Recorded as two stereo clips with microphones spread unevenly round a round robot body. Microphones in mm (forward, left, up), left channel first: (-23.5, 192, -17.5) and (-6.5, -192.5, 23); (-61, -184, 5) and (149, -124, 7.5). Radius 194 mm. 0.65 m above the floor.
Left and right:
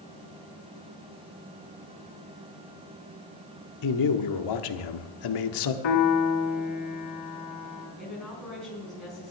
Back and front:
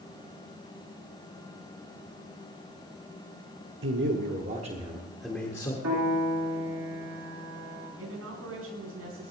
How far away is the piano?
About 3 m.